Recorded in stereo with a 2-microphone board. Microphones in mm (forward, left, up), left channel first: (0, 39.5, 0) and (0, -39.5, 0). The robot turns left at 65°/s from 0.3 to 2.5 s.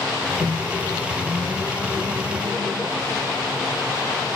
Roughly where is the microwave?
Left.